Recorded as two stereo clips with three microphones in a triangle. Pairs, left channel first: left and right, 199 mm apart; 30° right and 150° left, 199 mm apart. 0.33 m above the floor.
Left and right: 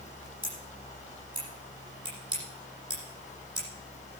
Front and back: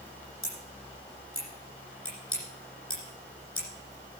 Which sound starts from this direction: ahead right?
Scissors, at 0.4 s.